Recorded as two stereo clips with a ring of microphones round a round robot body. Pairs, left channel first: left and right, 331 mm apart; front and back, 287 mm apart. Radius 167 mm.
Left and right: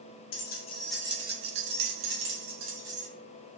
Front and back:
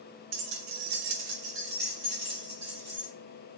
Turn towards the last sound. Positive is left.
turn(degrees=-95)